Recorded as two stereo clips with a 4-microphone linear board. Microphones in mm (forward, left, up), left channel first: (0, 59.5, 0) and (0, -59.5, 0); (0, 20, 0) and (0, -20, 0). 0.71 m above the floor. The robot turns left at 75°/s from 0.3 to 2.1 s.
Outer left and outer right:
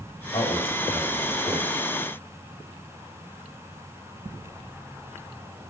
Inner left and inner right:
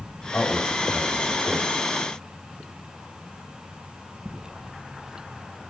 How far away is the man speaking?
About 3 m.